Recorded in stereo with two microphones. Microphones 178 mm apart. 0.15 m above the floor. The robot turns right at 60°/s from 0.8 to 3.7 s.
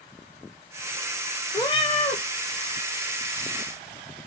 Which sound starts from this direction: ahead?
A cat meowing, at 1.5 s.